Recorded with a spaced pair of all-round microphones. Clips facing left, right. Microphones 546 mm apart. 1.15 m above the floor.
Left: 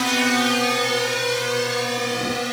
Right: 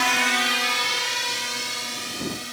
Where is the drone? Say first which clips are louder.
Left 9 dB; 60° left (ahead or behind); by 2.5 s 75° left (ahead or behind).